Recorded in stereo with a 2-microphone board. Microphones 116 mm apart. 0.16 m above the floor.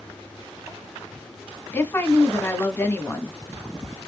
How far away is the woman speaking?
About 1.1 m.